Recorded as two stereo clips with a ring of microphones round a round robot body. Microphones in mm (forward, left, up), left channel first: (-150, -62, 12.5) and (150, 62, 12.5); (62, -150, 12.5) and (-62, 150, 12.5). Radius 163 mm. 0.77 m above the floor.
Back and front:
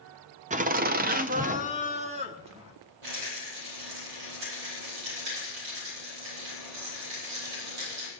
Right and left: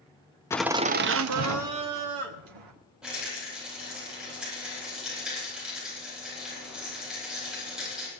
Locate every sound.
0.5 s laughter: straight ahead, 0.5 m; by 2.7 s 95° left, 1.8 m
3.0 s a rattle: 25° left, 10 m